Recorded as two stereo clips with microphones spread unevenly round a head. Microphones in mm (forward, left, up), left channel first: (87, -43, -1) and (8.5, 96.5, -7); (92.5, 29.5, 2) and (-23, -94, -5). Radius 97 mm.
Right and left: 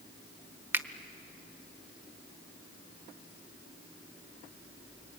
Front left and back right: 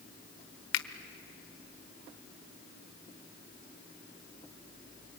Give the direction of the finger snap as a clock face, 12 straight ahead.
11 o'clock.